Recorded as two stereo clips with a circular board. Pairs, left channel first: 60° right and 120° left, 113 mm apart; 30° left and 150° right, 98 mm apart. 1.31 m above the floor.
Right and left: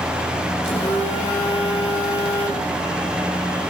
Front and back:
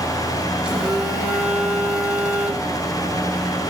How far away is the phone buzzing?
About 3 m.